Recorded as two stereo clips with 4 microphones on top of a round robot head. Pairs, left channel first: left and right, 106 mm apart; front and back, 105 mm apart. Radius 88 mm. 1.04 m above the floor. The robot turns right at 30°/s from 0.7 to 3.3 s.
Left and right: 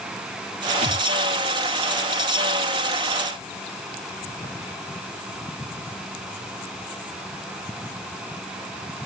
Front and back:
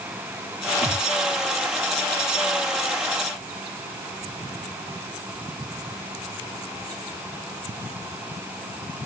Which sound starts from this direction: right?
A thud, at 0.8 s.